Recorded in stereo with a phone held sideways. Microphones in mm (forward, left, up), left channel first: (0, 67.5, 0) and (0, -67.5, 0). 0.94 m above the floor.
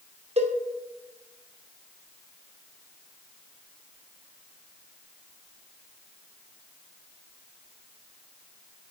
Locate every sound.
0.4 s a cowbell: 50° right (ahead or behind), 0.8 m